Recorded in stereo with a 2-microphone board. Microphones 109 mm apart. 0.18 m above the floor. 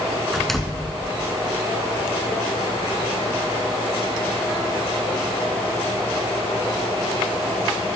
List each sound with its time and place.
0.3 s a door slam: 5° left (ahead or behind), 1.4 m